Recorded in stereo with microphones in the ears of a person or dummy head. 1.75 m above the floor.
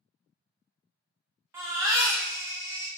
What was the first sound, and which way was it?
A baby crying, 10° right (ahead or behind).